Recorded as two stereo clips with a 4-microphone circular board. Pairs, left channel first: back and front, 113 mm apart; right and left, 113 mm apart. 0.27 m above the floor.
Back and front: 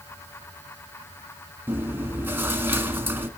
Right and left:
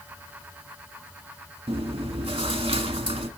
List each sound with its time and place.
1.7 s chewing: 70° left, 1.4 m